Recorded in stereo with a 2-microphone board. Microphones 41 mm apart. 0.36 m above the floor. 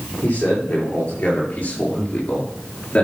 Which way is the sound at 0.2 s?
35° left (ahead or behind).